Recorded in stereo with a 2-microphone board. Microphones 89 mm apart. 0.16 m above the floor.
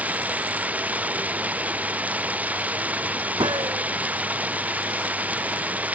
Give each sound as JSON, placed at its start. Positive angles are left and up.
{"t": 0.0, "sound": "running water", "side_deg": -15}
{"t": 3.4, "sound": "a gunshot", "side_deg": -60}